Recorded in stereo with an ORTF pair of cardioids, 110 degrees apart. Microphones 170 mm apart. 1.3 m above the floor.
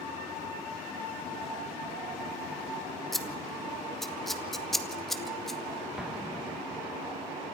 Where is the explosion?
5° right, 1.6 m.